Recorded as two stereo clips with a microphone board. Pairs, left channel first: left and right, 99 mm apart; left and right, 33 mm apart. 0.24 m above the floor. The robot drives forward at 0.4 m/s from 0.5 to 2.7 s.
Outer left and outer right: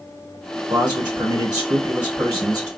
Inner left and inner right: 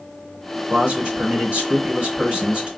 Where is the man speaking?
50° right (ahead or behind), 2.0 m; by 2.7 s 40° right (ahead or behind), 2 m.